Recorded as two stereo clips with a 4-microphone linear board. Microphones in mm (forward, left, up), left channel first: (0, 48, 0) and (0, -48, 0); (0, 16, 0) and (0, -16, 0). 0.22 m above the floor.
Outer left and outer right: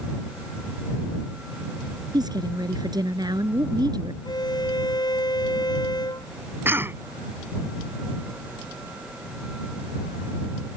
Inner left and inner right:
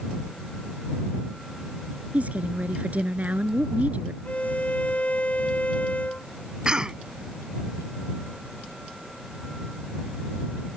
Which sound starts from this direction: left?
A violin, at 4.2 s.